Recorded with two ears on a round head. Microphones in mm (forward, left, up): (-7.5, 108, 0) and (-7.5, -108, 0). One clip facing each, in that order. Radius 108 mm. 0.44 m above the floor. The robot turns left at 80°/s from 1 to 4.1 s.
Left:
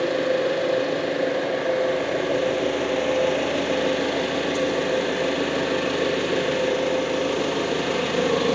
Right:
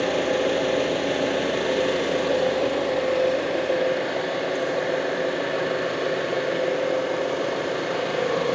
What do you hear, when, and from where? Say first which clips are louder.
0.0 s an engine running: left 1 dB; 70° right, 5.5 m; by 8.6 s 40° left, 5.5 m